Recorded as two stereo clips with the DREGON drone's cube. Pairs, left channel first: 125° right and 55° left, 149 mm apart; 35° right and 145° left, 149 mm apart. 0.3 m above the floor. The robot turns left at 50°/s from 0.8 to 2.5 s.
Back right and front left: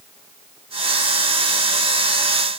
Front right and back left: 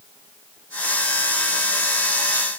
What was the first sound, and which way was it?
Only background noise.